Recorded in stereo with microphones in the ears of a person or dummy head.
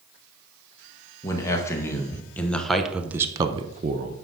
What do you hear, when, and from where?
1.2 s a man speaking: 20° left (ahead or behind), 1.8 m; by 4.2 s 40° right (ahead or behind), 0.8 m